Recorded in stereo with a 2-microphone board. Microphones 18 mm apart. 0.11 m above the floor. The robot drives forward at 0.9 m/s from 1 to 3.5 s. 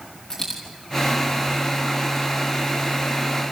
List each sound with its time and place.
0.3 s a dropped coin: 35° left (ahead or behind), 3.5 m